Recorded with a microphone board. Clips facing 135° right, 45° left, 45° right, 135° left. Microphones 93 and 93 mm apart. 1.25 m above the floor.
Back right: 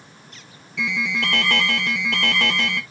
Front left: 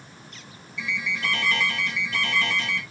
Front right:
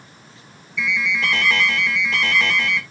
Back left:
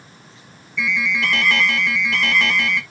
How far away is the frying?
I don't hear frying.